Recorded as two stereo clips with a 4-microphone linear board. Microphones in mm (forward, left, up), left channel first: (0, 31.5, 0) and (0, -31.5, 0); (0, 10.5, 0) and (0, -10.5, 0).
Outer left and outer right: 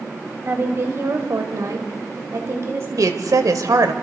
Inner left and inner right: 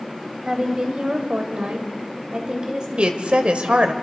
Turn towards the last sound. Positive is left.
turn(degrees=-60)  # may be behind; listen again after turning